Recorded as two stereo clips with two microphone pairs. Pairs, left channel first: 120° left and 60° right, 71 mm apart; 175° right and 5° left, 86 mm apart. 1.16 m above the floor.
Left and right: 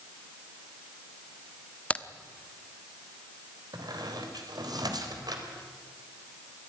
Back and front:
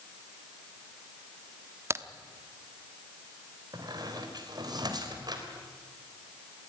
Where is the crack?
55° left, 0.9 m.